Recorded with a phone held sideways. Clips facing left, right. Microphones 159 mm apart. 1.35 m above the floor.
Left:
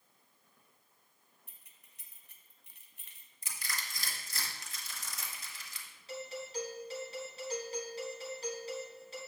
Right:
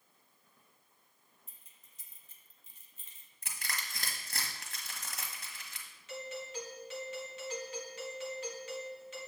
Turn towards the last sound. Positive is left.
turn(degrees=35)  # may be behind; listen again after turning